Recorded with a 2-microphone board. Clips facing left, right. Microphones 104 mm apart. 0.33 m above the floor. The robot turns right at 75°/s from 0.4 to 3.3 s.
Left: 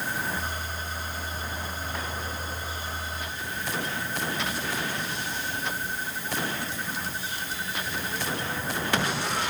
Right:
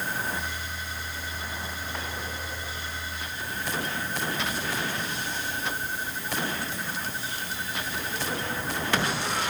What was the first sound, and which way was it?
Only background noise.